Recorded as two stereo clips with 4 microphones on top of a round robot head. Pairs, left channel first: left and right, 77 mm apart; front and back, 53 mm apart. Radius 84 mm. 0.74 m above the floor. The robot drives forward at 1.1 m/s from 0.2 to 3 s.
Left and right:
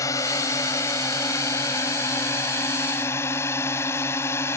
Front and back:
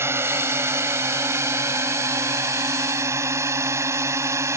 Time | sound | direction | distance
0.0 | a drone | 140° left | ?